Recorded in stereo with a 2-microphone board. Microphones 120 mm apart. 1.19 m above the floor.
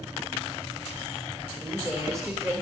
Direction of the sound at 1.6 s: 25° right (ahead or behind).